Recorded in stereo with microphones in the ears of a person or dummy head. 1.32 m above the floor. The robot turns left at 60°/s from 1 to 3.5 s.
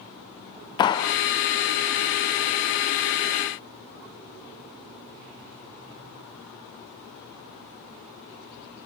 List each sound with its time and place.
0.8 s a clap: 25° left (ahead or behind), 0.7 m; by 1.1 s 30° left (ahead or behind), 0.7 m